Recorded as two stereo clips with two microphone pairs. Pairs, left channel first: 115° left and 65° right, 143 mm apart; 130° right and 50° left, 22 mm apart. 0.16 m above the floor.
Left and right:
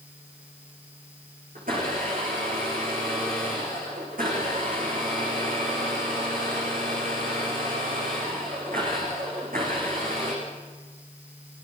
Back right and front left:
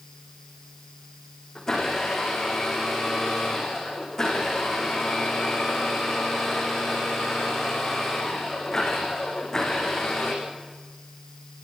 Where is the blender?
55° right, 9.5 m.